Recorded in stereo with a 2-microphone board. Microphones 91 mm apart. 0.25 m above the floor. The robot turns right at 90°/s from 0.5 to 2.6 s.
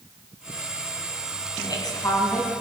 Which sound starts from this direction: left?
A woman speaking, at 1.6 s.